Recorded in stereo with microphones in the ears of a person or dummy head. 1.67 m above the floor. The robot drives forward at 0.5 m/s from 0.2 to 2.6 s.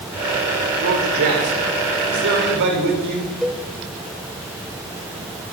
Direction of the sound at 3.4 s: Centre (ahead or behind).